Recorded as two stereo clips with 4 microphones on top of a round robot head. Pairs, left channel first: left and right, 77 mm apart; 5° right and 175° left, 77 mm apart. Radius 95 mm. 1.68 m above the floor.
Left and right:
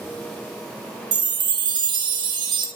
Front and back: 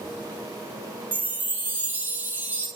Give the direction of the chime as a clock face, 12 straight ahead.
4 o'clock.